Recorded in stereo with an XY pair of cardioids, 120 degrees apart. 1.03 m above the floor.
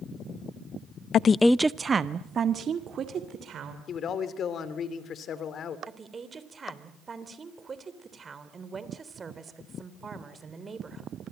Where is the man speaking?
50° left, 3 m.